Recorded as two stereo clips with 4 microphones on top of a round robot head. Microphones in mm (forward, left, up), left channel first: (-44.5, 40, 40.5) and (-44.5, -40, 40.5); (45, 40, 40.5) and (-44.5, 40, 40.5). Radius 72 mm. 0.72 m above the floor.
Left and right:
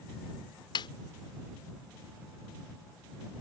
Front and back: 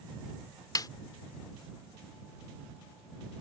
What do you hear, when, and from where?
0.8 s a snare drum: 45° left